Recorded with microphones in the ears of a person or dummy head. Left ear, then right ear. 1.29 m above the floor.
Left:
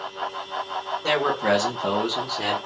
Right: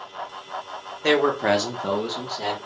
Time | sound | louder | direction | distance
1.0 | a man speaking | right 3 dB | 55° right (ahead or behind) | 0.8 m